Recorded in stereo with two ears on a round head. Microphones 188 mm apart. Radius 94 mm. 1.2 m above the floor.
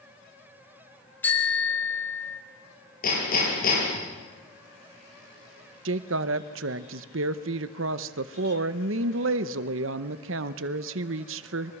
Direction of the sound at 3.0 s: 45° left (ahead or behind).